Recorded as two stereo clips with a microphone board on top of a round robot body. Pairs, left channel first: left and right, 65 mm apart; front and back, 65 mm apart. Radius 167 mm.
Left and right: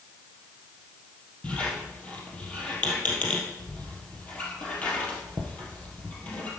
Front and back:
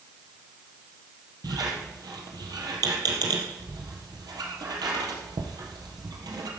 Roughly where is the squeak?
Behind.